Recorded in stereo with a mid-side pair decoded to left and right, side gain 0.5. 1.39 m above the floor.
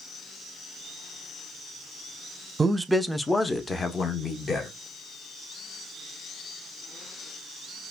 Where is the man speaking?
25° right, 0.5 m; by 4.7 s 40° left, 1.3 m.